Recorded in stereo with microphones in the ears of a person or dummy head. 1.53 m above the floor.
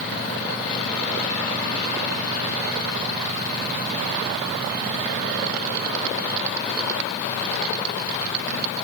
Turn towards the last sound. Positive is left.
No sound to turn to.